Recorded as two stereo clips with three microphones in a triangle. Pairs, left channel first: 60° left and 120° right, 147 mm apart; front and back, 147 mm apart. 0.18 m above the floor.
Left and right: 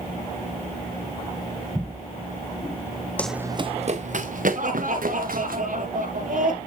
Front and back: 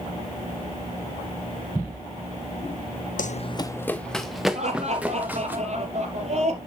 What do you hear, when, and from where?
3.2 s running footsteps: 20° right, 0.6 m; by 5.5 s 100° right, 3 m
4.5 s laughter: 140° right, 4.5 m